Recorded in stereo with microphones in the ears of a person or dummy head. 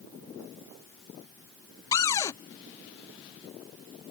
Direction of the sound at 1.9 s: 25° left (ahead or behind).